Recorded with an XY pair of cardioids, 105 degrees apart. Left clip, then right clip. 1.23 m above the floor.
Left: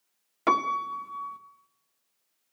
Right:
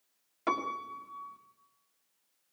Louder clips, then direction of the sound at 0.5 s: Left 8 dB; 45° left.